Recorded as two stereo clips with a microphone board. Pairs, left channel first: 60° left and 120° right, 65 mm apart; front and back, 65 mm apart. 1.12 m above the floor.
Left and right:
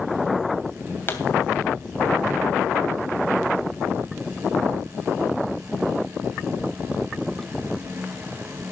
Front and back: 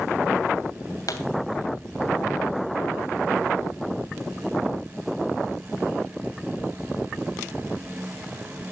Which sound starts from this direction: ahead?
A pop, at 1.1 s.